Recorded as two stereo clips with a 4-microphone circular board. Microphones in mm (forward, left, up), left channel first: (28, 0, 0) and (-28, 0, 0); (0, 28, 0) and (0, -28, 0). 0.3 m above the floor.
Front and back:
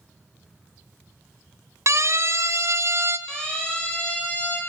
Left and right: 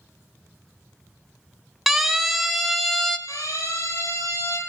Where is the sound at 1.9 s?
175° right, 2.5 m; by 3.2 s 170° left, 2.0 m.